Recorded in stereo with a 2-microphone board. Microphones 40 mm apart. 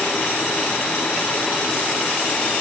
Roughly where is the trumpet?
No trumpet in this recording.